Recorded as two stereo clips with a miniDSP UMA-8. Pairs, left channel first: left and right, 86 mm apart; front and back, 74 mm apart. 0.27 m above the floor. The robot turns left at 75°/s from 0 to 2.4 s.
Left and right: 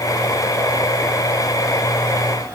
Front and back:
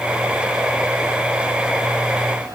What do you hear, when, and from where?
Only background noise.